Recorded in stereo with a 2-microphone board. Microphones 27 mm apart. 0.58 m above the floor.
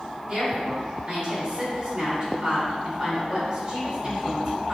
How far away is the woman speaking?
About 1.7 m.